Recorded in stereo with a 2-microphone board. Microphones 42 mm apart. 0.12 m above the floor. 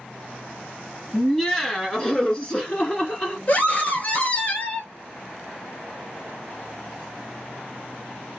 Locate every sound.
1.1 s laughter: 5° left (ahead or behind), 1.7 m; by 3.4 s 25° left (ahead or behind), 1.8 m
3.5 s a scream: 40° left (ahead or behind), 1.7 m